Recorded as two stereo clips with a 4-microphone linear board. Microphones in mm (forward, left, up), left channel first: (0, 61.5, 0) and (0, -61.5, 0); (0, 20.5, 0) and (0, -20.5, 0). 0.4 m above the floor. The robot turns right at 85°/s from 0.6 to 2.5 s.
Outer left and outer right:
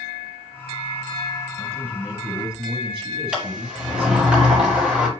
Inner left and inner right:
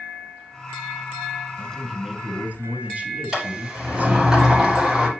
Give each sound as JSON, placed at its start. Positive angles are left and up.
{"t": 1.6, "sound": "a man speaking", "azimuth_deg": 150, "distance_m": 3.0}
{"t": 3.3, "sound": "a sliding door", "side_deg": -10, "distance_m": 5.0}